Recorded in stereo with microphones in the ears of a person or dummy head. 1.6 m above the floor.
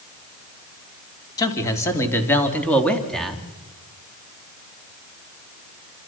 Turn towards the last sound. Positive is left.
turn(degrees=0)  # may be behind; listen again after turning